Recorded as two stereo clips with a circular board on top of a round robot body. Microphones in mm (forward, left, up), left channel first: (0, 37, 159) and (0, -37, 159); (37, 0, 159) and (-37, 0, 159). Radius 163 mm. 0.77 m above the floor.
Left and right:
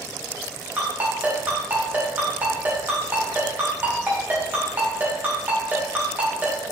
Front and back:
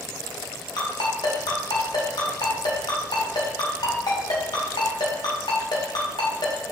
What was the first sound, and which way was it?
A ringtone, 25° right.